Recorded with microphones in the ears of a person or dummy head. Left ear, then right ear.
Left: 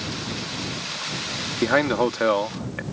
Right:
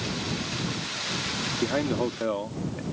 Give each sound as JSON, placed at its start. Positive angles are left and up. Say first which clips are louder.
{"t": 1.6, "sound": "a man speaking", "louder": "left 9 dB", "side_deg": 55}